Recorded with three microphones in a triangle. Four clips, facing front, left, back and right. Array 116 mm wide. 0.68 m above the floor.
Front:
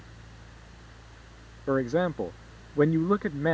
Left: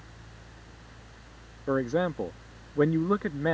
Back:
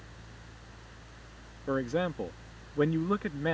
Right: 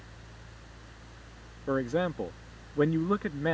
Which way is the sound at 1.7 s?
20° left.